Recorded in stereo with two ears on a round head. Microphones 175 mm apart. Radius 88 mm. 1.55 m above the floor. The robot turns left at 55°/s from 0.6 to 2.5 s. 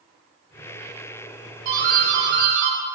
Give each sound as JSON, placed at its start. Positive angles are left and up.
{"t": 1.6, "sound": "a doorbell", "azimuth_deg": -45, "distance_m": 5.0}